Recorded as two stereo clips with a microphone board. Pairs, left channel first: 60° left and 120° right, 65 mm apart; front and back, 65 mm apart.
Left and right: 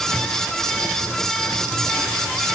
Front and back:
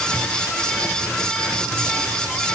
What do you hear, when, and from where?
Only background noise.